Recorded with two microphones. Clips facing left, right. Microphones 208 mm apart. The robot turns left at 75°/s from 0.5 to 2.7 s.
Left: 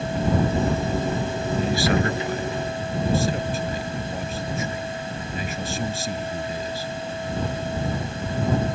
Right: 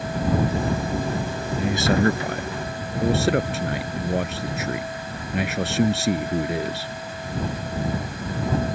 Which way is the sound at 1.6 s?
5° right.